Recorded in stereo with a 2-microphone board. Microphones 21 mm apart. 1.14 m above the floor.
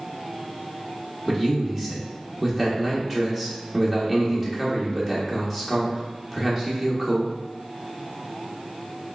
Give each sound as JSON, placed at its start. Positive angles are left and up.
{"t": 1.3, "sound": "a man speaking", "side_deg": -20, "distance_m": 0.9}